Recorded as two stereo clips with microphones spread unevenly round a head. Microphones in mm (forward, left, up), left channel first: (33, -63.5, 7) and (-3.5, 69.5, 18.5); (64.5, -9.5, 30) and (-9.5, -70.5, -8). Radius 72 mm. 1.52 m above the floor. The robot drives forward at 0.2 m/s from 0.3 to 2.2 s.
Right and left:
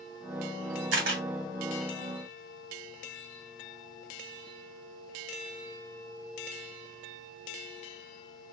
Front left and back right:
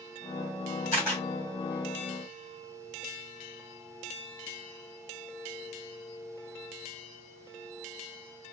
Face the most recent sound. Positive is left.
turn(degrees=125)